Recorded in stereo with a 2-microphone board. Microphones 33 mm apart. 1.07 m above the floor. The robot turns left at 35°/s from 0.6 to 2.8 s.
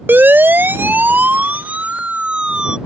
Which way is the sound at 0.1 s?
80° right.